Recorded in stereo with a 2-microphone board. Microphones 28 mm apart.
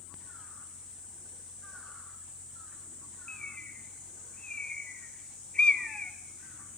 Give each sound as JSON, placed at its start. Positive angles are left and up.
{"t": 3.3, "sound": "a bird", "side_deg": 40, "distance_m": 2.5}